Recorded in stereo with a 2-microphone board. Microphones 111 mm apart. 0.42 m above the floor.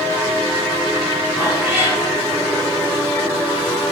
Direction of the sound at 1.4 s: 20° right (ahead or behind).